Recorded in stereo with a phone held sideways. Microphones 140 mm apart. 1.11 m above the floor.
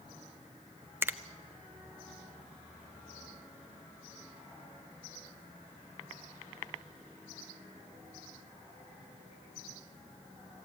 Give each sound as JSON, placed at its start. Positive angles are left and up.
{"t": 1.0, "sound": "a finger snap", "side_deg": -15, "distance_m": 0.7}